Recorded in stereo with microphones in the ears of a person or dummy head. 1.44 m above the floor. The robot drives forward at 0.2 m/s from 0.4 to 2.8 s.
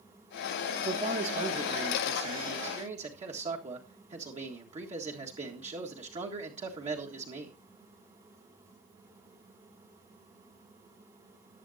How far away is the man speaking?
About 1.4 m.